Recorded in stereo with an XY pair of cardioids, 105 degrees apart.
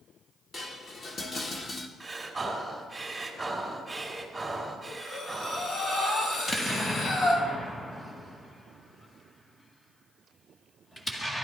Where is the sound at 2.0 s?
15° right, 3.5 m.